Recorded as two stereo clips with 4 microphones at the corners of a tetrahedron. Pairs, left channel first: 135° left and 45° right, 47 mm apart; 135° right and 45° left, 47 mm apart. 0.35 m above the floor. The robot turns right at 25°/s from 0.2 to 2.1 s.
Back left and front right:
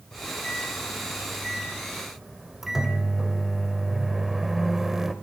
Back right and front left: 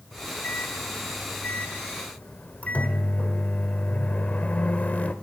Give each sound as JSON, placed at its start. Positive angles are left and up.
{"t": 0.1, "sound": "a microwave", "azimuth_deg": -170, "distance_m": 0.9}